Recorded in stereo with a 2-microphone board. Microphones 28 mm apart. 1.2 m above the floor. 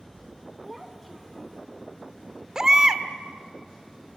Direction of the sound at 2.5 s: 20° right (ahead or behind).